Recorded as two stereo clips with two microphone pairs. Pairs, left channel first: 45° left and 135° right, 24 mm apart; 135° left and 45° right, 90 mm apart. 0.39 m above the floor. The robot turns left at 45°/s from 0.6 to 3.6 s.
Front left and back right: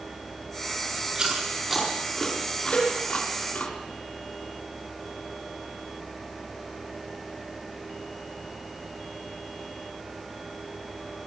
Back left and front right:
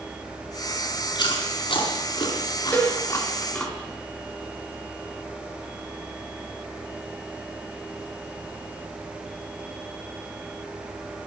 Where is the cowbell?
65° left, 7 m; by 2.9 s 55° left, 7 m.